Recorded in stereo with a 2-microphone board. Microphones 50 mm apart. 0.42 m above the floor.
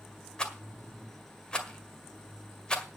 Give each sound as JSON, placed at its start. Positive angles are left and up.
{"t": 0.4, "sound": "a rattle", "side_deg": 15, "distance_m": 1.7}